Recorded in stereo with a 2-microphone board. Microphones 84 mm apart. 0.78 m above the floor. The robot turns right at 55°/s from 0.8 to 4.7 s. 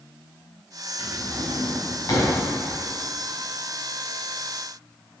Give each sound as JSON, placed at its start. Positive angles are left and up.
{"t": 1.0, "sound": "a drawer", "side_deg": 80, "distance_m": 3.0}